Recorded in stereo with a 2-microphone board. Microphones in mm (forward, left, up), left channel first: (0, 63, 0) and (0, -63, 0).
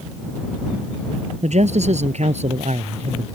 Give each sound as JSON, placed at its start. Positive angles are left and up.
{"t": 1.4, "sound": "a man speaking", "side_deg": -70}